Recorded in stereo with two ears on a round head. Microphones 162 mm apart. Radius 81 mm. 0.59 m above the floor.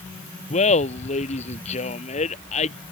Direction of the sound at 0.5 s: 40° left (ahead or behind).